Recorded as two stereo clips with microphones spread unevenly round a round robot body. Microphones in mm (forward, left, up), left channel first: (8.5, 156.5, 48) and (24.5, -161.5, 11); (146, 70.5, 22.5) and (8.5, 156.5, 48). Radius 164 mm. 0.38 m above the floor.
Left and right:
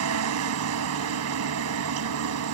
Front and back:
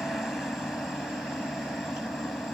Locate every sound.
0.0 s a helicopter: 120° right